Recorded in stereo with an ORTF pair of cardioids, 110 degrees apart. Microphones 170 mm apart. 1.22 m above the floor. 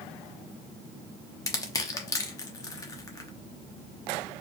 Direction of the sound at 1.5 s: 20° left.